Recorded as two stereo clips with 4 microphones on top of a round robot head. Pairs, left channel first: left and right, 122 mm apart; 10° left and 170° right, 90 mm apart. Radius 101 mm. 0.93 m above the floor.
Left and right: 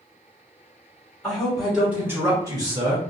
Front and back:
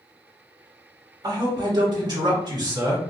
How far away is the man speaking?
About 1.2 m.